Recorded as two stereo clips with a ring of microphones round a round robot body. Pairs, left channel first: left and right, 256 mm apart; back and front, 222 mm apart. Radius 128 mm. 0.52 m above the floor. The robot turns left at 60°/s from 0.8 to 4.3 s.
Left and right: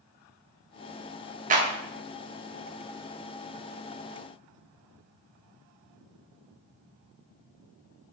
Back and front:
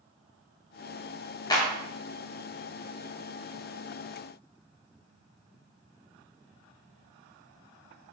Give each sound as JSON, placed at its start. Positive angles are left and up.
{"t": 1.5, "sound": "a clap", "azimuth_deg": -120, "distance_m": 1.1}